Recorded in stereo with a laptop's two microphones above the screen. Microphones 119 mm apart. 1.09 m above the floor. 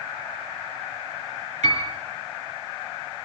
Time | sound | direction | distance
1.6 | a piano | 80° right | 6 m